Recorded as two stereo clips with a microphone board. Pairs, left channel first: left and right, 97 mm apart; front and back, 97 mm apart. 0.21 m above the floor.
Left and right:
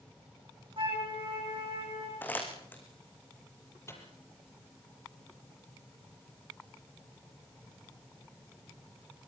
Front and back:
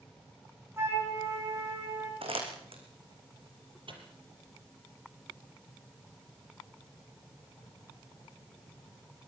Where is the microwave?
150° left, 5.5 m.